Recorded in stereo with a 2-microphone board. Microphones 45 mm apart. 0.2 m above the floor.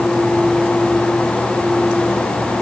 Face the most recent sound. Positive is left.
No sound to turn to.